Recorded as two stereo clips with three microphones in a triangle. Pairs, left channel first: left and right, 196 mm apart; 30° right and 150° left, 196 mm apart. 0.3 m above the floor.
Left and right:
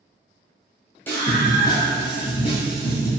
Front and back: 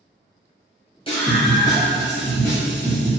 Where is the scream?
15° left, 1.9 m; by 3.1 s 55° left, 2 m.